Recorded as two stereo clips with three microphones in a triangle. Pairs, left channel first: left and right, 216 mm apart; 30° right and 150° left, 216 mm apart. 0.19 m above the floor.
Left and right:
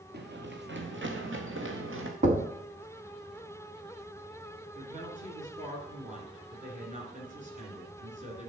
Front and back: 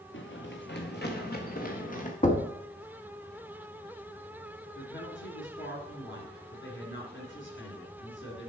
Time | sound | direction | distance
0.1 | running footsteps | 50° right | 1.6 m
2.2 | knocking | 60° right | 1.1 m
4.8 | a woman speaking | 40° right | 2.5 m